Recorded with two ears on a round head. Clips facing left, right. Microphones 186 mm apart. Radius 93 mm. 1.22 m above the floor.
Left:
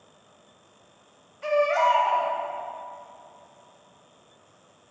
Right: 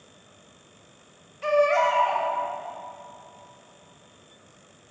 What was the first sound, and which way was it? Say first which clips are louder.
A baby crying: right 2 dB; 45° right (ahead or behind).